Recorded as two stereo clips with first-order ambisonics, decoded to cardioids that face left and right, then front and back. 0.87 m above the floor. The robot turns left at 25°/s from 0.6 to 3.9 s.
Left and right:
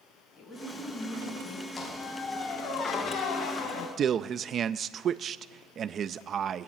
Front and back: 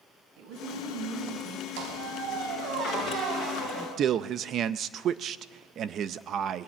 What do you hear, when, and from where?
0.4 s a woman speaking: 175° right, 5.5 m; by 1.7 s 160° left, 5.5 m
1.8 s a squeak: 165° left, 4 m; by 3.9 s 115° left, 4 m
4.0 s a man speaking: 140° right, 0.5 m